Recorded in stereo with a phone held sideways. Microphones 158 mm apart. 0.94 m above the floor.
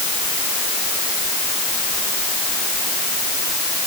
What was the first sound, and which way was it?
Only background noise.